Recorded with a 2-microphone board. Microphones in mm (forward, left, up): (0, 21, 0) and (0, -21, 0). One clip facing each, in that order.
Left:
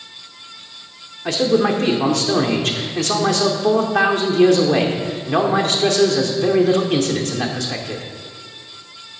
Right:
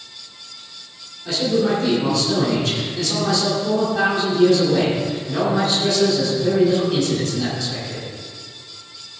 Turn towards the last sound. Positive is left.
turn(degrees=60)  # may be behind; listen again after turning